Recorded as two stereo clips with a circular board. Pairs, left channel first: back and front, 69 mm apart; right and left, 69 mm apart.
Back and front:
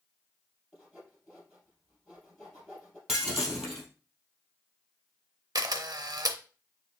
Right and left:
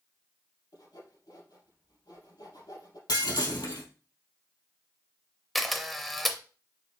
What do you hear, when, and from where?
0.7 s sawing: 95° right, 3 m
3.1 s breaking glass: 85° right, 2 m
5.5 s a camera shutter: 5° right, 0.6 m